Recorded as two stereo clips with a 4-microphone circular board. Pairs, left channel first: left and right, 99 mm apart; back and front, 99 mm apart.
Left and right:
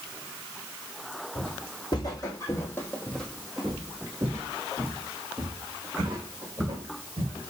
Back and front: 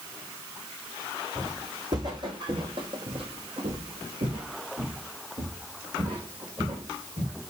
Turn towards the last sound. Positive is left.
turn(degrees=-55)